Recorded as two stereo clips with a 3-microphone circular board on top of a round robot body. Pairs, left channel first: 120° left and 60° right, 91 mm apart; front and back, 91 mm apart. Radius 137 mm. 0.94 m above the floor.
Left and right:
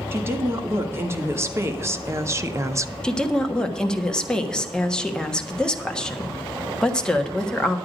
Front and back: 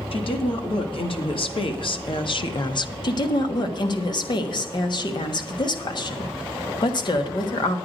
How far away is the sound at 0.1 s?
About 2.5 m.